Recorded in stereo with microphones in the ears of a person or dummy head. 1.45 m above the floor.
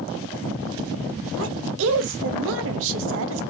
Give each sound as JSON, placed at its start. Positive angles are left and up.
{"t": 1.4, "sound": "a woman speaking", "side_deg": -70, "distance_m": 0.9}